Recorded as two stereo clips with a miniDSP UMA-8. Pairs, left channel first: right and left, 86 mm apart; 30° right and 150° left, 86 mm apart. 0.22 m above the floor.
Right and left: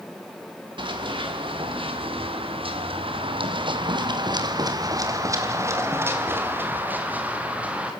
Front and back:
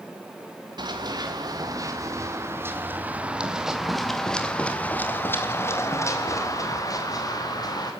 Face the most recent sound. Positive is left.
turn(degrees=10)